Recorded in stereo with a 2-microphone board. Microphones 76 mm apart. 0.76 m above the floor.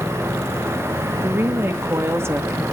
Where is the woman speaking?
35° right (ahead or behind), 1.3 m.